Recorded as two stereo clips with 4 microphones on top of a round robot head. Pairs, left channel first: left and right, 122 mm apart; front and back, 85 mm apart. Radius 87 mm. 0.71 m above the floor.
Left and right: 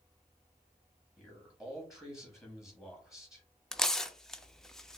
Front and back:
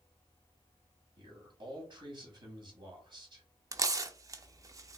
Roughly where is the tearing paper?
Behind.